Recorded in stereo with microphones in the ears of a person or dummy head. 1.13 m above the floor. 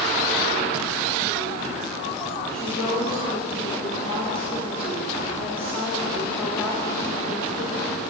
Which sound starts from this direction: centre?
A woman speaking, at 2.5 s.